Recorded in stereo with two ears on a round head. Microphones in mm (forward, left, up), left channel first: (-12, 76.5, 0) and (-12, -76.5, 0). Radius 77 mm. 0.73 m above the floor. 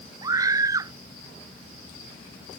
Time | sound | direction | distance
0.2 | a scream | 20° right (ahead or behind) | ?